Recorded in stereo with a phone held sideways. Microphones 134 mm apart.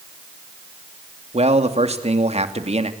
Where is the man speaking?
50° right (ahead or behind), 2.5 m.